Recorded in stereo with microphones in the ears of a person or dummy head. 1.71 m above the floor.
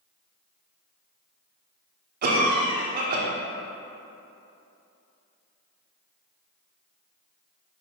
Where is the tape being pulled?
No tape being pulled in this recording.